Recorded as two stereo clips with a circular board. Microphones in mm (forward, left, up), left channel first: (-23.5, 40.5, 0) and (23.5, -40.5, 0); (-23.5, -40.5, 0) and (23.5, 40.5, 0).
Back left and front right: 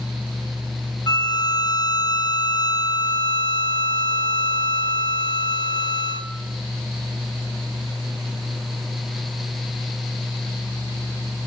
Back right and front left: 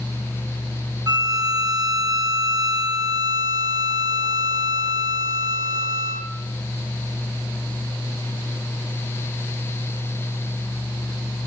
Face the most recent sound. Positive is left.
turn(degrees=90)